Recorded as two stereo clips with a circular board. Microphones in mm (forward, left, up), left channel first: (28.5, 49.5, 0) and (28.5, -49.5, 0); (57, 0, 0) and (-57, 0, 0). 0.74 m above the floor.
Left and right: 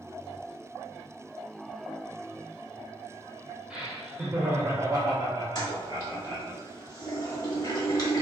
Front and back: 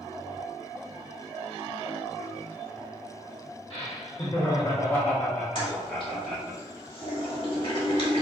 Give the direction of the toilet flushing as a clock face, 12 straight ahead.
11 o'clock.